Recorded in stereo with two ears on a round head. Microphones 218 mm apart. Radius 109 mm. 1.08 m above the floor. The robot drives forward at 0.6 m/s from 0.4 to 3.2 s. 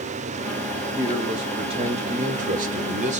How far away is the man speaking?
About 1.2 m.